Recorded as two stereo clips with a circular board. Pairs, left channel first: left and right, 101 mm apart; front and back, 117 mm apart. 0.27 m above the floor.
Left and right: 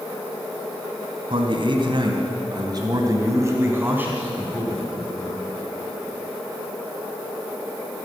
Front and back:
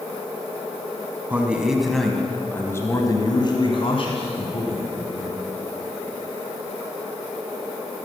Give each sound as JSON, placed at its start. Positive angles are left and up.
{"t": 1.3, "sound": "a man speaking", "azimuth_deg": -105, "distance_m": 2.0}